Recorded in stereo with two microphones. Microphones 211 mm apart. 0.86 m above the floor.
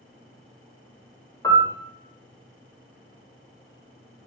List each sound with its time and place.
1.4 s a piano: 15° left (ahead or behind), 0.6 m